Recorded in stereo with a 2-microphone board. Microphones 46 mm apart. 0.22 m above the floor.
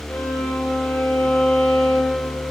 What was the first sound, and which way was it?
A violin, 45° left (ahead or behind).